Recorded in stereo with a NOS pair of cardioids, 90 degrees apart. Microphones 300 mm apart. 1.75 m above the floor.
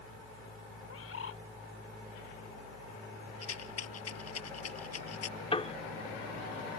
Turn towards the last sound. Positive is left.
turn(degrees=20)